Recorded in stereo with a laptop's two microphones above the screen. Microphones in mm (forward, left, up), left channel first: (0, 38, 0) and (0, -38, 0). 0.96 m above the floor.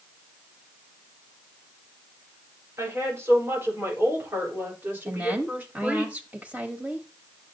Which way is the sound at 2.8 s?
35° right (ahead or behind).